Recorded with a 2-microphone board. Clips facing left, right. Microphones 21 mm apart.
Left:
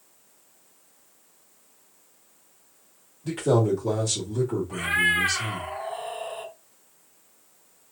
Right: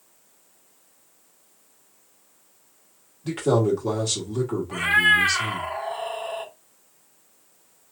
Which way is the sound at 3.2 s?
20° right (ahead or behind).